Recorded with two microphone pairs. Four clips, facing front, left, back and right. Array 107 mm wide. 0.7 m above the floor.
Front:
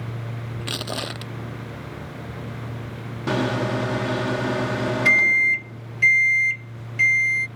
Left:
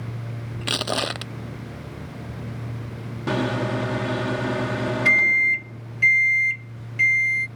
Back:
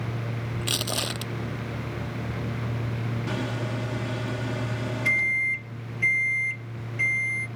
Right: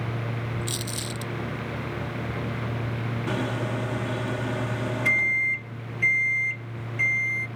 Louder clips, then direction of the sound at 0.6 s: Left 7 dB, front 2 dB; 90° left.